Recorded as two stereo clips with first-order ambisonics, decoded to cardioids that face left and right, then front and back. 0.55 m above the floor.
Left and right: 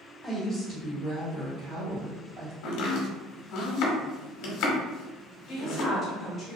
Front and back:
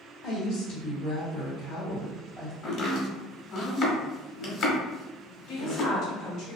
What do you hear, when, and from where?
0.2 s a woman speaking: 5° left, 1.9 m; by 2.5 s 65° right, 1.9 m
2.6 s chopping: 60° left, 0.8 m
5.5 s a woman speaking: 30° left, 1.3 m